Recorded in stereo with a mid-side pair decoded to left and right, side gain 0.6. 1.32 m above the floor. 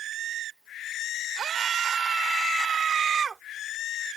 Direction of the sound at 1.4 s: 35° right.